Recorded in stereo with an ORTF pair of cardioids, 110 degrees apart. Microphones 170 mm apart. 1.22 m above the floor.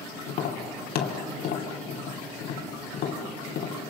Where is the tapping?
65° left, 2.5 m.